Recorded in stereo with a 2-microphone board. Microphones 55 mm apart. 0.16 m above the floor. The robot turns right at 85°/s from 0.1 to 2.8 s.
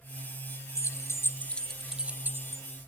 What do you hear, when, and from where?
0.8 s keys jangling: 65° left (ahead or behind), 1.6 m; by 2.6 s 60° right (ahead or behind), 1.6 m